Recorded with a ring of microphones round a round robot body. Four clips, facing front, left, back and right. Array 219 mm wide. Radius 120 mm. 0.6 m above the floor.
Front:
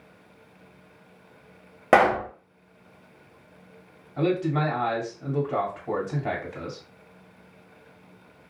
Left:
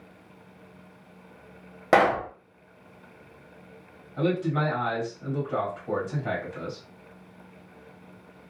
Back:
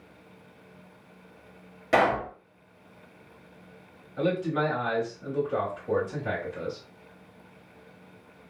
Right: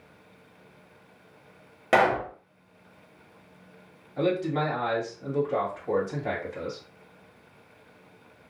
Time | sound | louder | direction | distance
1.9 | a pop | left 1 dB, front 4 dB | 20° left | 1.3 m
4.2 | a man speaking | even, front 2 dB | 10° right | 1.9 m